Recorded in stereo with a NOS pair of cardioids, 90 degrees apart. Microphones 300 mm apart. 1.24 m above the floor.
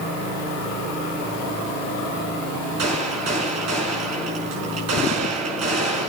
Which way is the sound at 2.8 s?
60° right.